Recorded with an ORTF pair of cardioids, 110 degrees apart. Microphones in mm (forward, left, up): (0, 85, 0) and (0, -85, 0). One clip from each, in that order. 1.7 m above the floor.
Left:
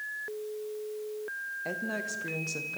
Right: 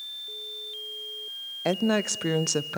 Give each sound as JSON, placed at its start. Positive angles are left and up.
{"t": 1.6, "sound": "a woman speaking", "azimuth_deg": -55, "distance_m": 0.7}